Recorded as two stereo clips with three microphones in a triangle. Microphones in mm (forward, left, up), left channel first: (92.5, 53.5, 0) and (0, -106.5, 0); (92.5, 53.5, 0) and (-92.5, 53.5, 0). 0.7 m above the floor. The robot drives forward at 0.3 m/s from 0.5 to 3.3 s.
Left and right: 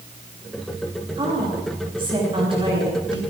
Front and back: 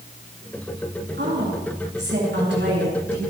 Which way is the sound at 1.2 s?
Straight behind.